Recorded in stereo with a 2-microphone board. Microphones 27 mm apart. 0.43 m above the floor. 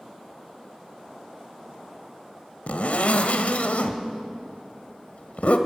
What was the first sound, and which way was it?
A zipper, 65° left (ahead or behind).